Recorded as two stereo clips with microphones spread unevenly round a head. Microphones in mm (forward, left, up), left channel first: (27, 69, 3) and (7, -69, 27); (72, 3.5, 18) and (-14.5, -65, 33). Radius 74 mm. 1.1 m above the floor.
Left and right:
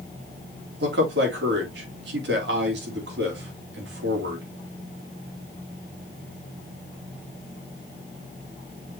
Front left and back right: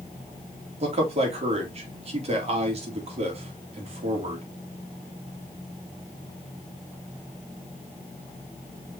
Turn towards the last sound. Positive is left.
turn(degrees=-110)